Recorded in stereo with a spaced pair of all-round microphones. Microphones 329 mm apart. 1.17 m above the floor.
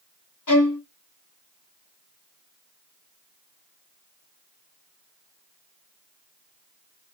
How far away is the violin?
About 1.3 m.